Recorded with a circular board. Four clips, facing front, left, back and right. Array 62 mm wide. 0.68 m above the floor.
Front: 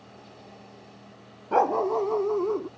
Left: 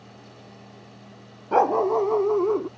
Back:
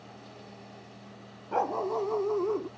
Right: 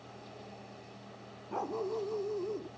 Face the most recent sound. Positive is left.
turn(degrees=85)